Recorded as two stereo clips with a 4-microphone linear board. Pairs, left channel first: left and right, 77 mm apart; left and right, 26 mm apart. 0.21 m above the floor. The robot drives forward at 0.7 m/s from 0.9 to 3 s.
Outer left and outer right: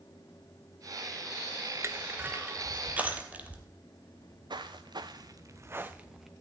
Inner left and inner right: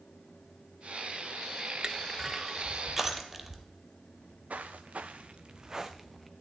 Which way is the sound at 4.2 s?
85° right.